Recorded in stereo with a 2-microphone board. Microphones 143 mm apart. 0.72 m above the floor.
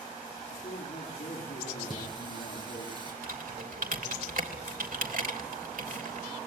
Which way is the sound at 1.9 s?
35° right (ahead or behind).